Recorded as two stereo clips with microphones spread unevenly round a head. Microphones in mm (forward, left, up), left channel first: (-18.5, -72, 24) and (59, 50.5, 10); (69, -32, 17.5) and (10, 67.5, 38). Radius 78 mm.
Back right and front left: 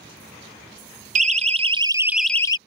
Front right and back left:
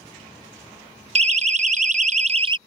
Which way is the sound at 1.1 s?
90° left.